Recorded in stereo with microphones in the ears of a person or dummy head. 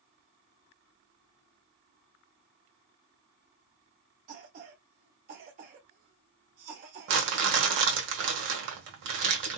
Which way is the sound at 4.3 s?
50° right (ahead or behind).